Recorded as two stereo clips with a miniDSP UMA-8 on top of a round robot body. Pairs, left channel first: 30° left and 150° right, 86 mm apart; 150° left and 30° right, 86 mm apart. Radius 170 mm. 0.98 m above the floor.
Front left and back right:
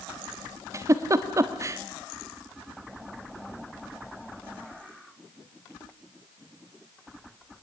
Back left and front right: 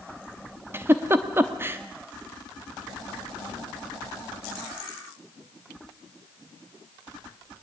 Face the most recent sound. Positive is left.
turn(degrees=-95)